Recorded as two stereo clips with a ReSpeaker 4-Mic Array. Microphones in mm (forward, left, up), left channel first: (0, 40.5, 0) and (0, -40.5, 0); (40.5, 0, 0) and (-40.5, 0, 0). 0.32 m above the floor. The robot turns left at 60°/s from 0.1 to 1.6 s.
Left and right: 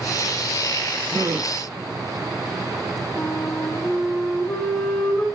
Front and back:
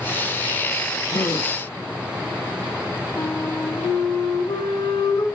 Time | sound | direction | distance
1.1 | a gasp | 30° right | 2 m
3.2 | a flute | 25° left | 4.5 m